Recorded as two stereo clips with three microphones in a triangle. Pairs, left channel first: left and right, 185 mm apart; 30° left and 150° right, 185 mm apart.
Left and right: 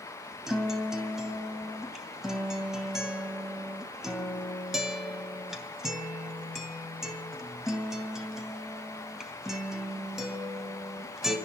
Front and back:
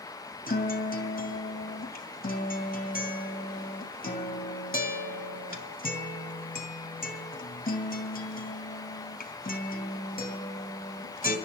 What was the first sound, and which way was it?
A guitar, 5° right.